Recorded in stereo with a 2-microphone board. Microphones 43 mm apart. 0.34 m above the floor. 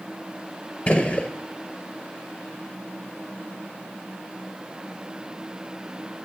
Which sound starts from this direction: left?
A gunshot, at 0.9 s.